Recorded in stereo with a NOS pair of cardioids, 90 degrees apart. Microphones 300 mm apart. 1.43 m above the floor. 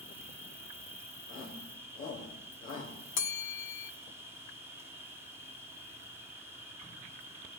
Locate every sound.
0.0 s an insect: 10° right, 2 m
1.3 s a shout: 40° left, 4 m
3.2 s a bell: 45° left, 0.7 m